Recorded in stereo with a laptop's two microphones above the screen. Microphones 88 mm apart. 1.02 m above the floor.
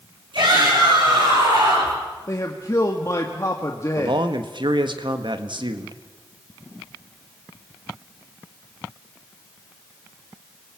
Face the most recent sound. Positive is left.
turn(degrees=-65)  # may be behind; listen again after turning